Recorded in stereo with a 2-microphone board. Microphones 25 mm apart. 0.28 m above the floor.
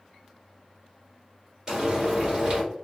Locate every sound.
1.7 s frying: 25° right (ahead or behind), 1.8 m